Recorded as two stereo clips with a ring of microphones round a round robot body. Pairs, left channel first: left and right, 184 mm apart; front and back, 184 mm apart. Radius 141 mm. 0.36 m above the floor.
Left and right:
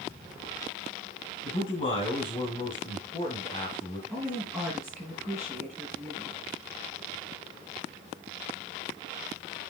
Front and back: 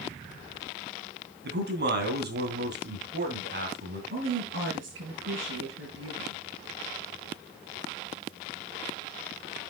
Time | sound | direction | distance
1.4 | a man speaking | 155° left | 3 m
4.1 | a woman speaking | 175° right | 6 m